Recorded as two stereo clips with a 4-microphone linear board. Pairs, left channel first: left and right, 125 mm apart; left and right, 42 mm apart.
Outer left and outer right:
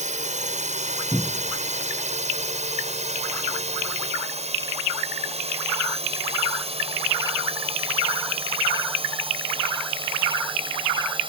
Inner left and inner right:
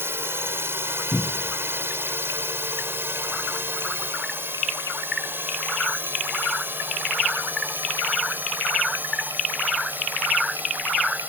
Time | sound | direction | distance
0.0 | a drone | 80° right | ?
1.1 | a cupboard door | 25° left (ahead or behind) | ?